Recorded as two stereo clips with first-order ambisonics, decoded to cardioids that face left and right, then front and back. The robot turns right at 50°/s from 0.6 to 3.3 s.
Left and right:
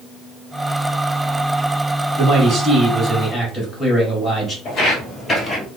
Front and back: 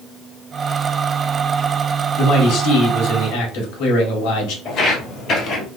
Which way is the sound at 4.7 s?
45° left.